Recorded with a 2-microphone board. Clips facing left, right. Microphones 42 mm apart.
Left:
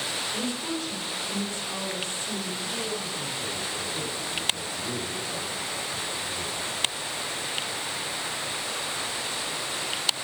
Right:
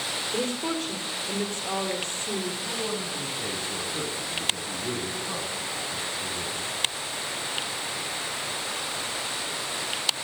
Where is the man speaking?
75° right (ahead or behind), 10 m.